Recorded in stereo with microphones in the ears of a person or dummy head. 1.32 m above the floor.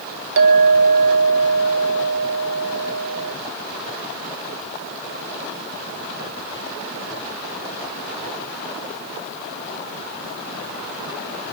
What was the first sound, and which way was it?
A clink, 60° right (ahead or behind).